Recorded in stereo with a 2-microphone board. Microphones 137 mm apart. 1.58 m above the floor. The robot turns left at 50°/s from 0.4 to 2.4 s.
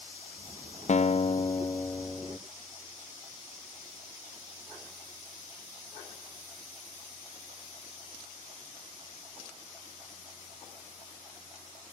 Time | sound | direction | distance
0.9 | a guitar | 70° left | ?